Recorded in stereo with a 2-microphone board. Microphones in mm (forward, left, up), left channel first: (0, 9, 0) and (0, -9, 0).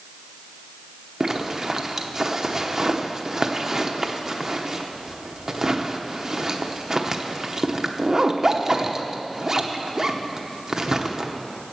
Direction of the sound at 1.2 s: 25° right (ahead or behind).